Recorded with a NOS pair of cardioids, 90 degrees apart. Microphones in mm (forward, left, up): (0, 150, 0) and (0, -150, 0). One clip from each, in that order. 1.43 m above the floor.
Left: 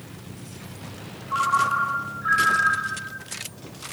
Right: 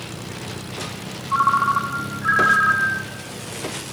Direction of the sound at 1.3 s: 40° right.